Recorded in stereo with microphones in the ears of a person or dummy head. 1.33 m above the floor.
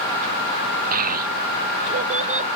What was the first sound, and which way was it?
A child speaking, 45° right (ahead or behind).